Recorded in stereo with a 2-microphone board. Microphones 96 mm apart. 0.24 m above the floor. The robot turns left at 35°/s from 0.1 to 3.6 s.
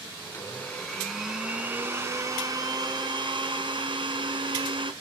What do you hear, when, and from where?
0.2 s a blender: 30° left, 3 m; by 4.9 s 85° right, 3 m